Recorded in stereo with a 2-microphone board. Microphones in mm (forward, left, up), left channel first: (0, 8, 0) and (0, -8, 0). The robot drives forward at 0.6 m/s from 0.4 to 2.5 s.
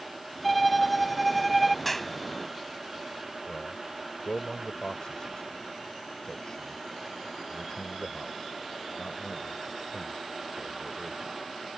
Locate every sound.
0.4 s a violin: centre (ahead or behind)
1.9 s a clap: 10° left (ahead or behind)
3.5 s a man speaking: 50° left (ahead or behind)